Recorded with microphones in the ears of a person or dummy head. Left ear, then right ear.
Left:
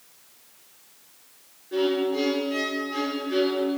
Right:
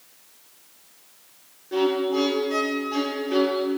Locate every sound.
1.7 s a violin: 25° right (ahead or behind), 0.7 m